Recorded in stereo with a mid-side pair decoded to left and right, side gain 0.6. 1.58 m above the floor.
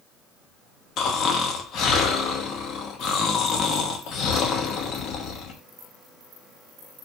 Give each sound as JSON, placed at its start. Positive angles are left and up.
{"t": 1.0, "sound": "snoring", "azimuth_deg": 55, "distance_m": 0.6}